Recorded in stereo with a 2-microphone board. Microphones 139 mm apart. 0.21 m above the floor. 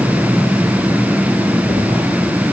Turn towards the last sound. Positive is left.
No sound to turn to.